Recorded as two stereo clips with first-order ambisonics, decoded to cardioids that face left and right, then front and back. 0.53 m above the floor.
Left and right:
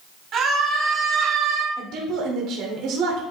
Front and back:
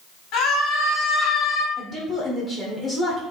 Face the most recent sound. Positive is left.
turn(degrees=-70)